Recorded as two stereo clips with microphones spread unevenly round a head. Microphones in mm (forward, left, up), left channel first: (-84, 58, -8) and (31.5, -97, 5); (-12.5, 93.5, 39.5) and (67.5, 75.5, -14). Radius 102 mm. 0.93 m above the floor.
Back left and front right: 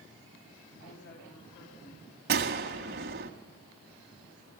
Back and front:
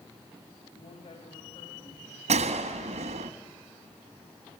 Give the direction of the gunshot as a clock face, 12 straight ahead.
1 o'clock.